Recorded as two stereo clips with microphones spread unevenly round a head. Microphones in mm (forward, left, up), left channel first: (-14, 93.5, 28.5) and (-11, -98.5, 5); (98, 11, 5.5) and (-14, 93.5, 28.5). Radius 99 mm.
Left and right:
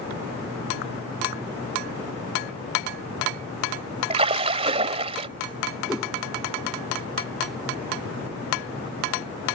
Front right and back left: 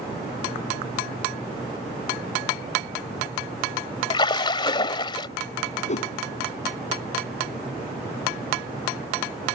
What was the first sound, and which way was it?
A splash, 60° right.